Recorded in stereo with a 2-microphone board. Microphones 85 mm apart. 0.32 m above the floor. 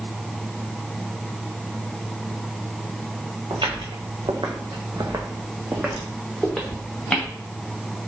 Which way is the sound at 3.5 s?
70° right (ahead or behind).